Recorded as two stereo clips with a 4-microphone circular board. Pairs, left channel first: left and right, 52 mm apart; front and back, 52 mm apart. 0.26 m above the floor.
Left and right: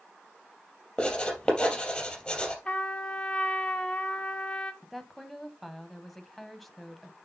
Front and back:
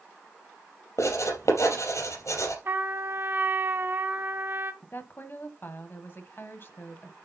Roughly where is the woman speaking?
Ahead.